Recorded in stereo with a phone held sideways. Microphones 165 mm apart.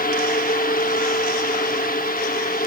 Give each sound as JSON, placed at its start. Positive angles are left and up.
{"t": 0.0, "sound": "a fan", "side_deg": 60, "distance_m": 1.0}